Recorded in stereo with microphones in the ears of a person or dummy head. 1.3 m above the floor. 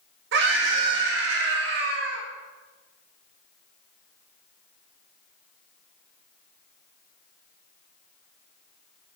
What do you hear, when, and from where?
0.3 s a scream: 75° right (ahead or behind), 1.5 m